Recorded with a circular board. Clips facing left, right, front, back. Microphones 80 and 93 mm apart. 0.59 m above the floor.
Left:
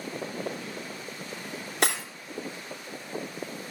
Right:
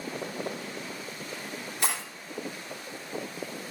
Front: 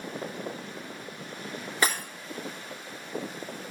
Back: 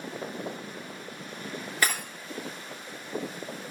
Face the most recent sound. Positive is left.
turn(degrees=70)